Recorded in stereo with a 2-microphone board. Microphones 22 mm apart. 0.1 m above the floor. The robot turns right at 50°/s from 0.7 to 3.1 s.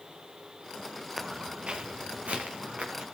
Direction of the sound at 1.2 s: 15° right (ahead or behind).